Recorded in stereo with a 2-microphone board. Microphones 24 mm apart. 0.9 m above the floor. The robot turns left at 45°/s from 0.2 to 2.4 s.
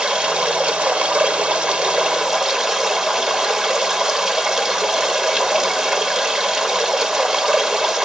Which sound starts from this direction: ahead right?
Running water, at 0.0 s.